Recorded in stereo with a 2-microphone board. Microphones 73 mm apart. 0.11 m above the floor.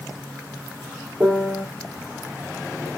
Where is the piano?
20° right (ahead or behind), 1.6 m.